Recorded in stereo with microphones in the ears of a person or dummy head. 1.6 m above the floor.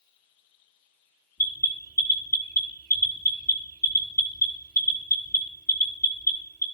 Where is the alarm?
15° left (ahead or behind), 1.3 m.